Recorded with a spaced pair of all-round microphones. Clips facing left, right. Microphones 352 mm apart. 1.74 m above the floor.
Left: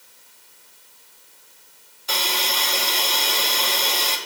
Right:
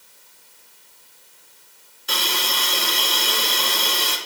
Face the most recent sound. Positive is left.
turn(degrees=-20)  # may be behind; listen again after turning